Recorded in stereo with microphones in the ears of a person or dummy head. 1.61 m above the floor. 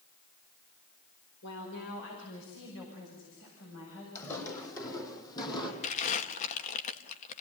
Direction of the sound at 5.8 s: 40° left (ahead or behind).